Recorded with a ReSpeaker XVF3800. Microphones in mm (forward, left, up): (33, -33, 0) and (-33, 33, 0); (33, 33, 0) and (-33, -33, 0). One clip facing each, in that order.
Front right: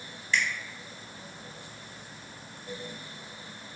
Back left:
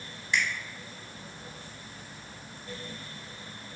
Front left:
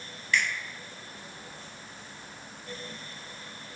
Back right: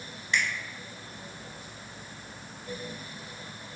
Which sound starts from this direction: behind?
A finger snap, at 0.3 s.